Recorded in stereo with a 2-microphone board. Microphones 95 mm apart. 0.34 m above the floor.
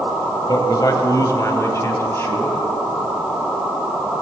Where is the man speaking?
45° left (ahead or behind), 1.4 m; by 2.6 s 25° left (ahead or behind), 2 m.